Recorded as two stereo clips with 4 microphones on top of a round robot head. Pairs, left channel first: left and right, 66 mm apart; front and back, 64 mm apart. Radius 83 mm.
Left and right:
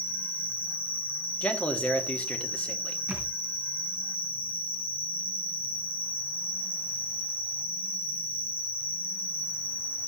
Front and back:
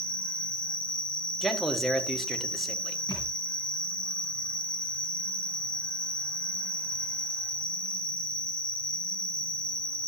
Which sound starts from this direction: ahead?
A thud, at 3.1 s.